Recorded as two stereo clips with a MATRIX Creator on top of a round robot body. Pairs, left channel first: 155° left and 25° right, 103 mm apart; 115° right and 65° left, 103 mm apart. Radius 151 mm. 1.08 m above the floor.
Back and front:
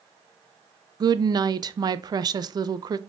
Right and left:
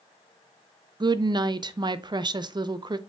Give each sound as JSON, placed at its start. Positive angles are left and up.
{"t": 1.0, "sound": "a woman speaking", "azimuth_deg": 25, "distance_m": 0.5}